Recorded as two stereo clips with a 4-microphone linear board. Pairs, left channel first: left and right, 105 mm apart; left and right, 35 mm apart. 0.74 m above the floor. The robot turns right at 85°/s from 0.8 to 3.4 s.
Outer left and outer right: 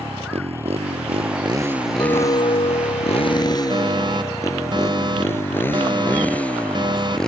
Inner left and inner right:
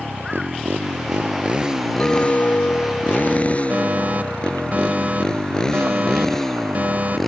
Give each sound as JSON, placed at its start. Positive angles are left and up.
{"t": 0.0, "sound": "a motorcycle", "side_deg": -70}
{"t": 2.0, "sound": "a clink", "azimuth_deg": 40}
{"t": 3.7, "sound": "a fire alarm", "side_deg": -45}